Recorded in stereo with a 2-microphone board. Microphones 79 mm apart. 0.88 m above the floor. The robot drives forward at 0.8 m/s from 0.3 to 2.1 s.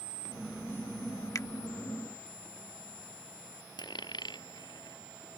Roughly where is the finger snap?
Left.